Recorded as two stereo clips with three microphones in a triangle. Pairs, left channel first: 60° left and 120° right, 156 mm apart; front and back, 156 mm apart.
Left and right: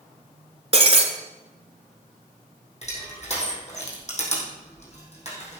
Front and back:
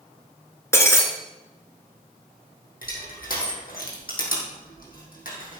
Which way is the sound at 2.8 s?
20° left.